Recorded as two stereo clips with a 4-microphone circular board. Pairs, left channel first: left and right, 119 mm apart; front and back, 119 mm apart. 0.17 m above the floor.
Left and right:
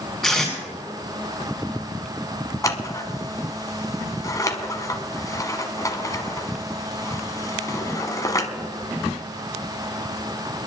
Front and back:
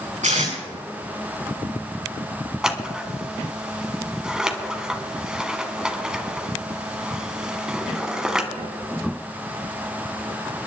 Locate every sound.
0.2 s tape being pulled: straight behind, 6.5 m
2.6 s scissors: 100° left, 1.0 m